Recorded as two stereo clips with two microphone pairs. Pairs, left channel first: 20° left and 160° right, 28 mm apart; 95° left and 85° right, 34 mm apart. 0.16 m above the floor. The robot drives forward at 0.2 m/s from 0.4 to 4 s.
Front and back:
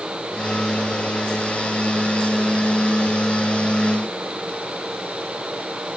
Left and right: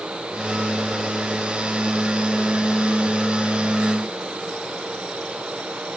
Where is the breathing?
I don't hear breathing.